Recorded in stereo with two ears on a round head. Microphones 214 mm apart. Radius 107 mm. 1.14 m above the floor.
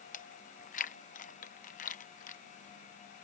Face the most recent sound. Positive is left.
turn(degrees=35)  # may be behind; listen again after turning